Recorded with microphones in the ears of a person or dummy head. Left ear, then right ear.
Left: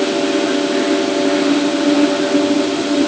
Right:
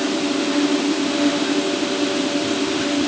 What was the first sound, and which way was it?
Only background noise.